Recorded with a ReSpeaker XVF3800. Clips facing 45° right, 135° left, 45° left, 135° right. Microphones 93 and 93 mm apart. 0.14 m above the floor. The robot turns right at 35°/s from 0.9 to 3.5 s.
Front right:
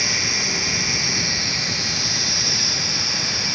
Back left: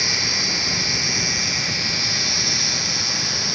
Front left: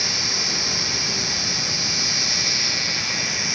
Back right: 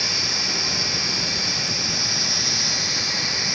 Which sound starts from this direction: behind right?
An insect, at 0.0 s.